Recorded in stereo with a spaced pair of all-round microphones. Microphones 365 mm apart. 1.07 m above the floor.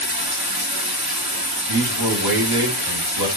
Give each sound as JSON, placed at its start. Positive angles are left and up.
{"t": 0.0, "sound": "running water", "side_deg": -85, "distance_m": 2.5}
{"t": 1.7, "sound": "a man speaking", "side_deg": -85, "distance_m": 4.0}